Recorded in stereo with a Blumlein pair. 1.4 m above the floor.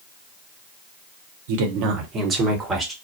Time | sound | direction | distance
1.5 | a woman speaking | 55° right | 0.9 m